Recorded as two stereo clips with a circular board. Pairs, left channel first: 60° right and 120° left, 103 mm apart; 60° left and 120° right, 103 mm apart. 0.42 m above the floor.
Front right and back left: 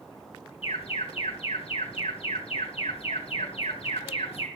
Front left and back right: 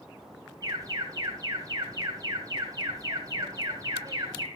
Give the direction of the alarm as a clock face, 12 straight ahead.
2 o'clock.